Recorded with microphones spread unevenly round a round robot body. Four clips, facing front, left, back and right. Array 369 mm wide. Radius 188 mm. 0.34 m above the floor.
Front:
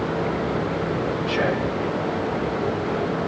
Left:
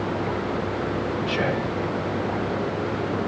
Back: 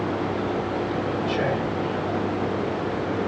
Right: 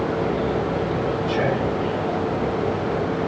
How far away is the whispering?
About 1.2 m.